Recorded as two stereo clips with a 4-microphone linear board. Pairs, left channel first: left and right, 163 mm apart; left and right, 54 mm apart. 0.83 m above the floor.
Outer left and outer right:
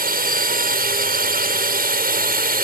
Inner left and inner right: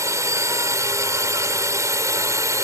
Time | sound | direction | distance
0.0 | a drone | 65° right (ahead or behind) | ?